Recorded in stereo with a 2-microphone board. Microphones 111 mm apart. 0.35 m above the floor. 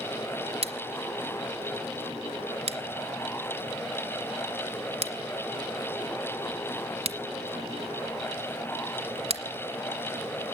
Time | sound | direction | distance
0.6 | scissors | 60° right (ahead or behind) | 1.6 m